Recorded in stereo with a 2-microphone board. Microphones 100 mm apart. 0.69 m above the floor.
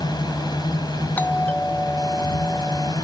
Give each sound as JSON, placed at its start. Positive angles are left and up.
{"t": 0.0, "sound": "a drone", "side_deg": 45}
{"t": 1.2, "sound": "a doorbell", "side_deg": 15}